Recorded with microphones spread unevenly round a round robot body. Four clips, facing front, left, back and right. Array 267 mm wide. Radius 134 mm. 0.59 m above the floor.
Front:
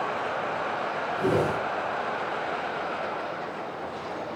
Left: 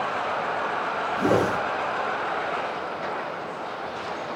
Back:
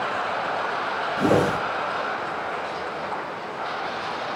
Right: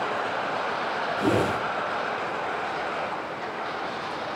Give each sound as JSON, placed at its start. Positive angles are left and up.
{"t": 1.2, "sound": "a whoosh", "azimuth_deg": 170, "distance_m": 2.5}